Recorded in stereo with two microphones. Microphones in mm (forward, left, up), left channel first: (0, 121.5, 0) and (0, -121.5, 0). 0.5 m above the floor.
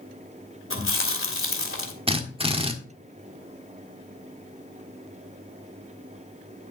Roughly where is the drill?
Right.